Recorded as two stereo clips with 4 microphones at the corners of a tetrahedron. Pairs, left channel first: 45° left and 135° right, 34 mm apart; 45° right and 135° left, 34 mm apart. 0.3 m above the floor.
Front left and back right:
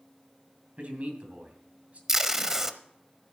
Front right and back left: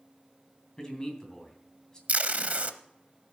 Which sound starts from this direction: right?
A man speaking, at 0.8 s.